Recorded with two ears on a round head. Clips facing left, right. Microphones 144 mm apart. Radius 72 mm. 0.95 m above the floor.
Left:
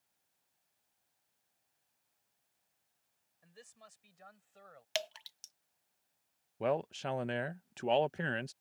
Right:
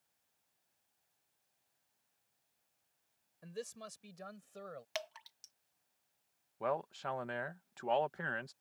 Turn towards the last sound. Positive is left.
turn(degrees=30)  # may be behind; listen again after turning